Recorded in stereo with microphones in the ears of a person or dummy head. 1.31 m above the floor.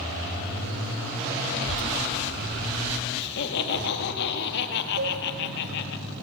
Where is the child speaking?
65° left (ahead or behind), 1.2 m; by 3.1 s 15° left (ahead or behind), 1.6 m.